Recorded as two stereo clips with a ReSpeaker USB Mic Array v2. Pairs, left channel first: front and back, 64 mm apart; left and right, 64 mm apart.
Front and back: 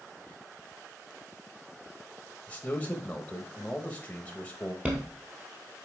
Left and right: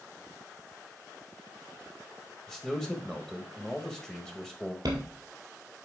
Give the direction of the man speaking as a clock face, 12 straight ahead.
11 o'clock.